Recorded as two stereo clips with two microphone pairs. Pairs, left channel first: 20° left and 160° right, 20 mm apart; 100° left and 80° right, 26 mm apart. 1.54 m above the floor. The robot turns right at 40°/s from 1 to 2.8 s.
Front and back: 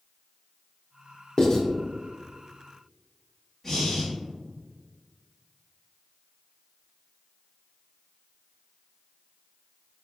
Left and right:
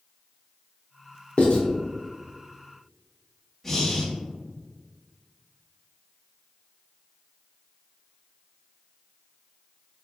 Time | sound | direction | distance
1.4 | writing | 65° left | 0.8 m
3.6 | breathing | 45° left | 1.1 m